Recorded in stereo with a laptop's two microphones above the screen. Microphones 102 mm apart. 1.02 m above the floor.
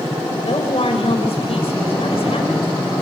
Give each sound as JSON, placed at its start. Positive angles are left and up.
{"t": 0.3, "sound": "a woman speaking", "side_deg": 70, "distance_m": 5.5}